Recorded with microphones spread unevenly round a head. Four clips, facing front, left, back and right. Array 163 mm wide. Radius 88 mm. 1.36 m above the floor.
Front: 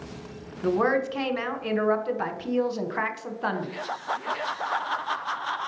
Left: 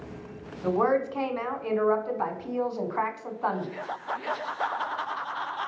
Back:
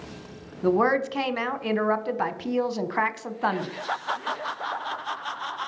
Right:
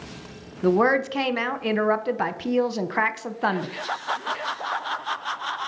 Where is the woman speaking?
115° right, 0.7 m.